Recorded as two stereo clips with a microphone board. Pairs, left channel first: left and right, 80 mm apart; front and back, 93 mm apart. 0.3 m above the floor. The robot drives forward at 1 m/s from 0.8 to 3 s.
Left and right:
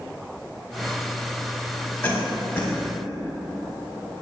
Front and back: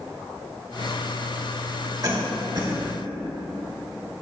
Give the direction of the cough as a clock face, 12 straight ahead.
7 o'clock.